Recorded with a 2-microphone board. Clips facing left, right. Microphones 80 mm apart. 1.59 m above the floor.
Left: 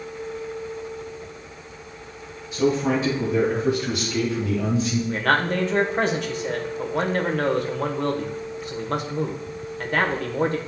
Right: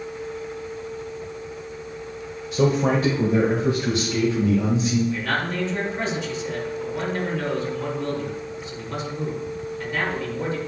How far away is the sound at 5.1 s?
About 1.1 m.